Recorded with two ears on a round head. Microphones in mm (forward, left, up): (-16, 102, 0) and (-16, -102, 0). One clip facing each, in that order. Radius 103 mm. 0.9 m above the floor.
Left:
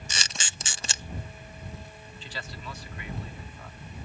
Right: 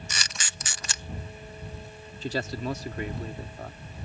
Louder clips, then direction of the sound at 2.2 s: Right 12 dB; 40° right (ahead or behind).